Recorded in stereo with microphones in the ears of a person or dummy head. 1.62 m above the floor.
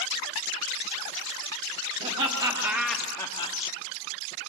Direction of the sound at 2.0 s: 40° right (ahead or behind).